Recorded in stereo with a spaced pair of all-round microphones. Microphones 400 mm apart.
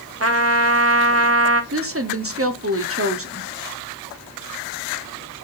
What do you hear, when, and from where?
0.2 s a trumpet: 35° right (ahead or behind), 0.9 m
1.7 s a woman speaking: 35° right (ahead or behind), 0.8 m